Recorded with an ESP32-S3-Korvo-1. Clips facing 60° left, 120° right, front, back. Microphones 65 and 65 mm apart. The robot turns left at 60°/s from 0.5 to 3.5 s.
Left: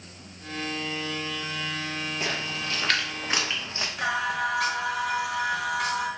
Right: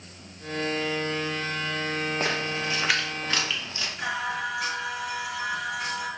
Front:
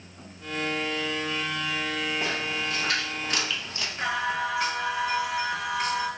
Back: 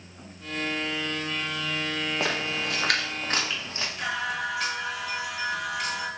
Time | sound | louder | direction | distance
2.2 | a splash | right 3 dB, back 1 dB | 160° right | 0.7 m
4.0 | singing | left 3 dB, front 3 dB | 65° left | 1.1 m